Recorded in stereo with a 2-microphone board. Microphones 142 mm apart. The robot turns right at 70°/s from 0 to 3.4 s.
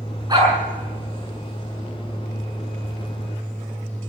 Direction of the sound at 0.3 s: 30° right (ahead or behind).